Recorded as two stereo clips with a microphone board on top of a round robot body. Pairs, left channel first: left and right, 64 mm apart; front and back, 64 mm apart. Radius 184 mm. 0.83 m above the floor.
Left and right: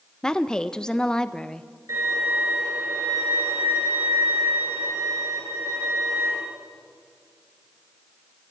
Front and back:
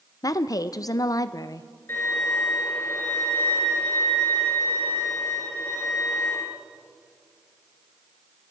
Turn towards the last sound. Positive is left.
turn(degrees=-50)